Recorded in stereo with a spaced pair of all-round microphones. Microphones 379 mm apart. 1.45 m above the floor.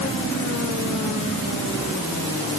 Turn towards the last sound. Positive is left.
No sound to turn to.